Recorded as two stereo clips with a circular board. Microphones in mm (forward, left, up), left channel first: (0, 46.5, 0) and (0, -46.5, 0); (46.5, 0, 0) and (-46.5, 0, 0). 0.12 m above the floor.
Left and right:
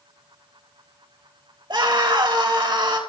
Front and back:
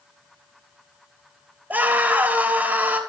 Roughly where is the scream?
Behind right.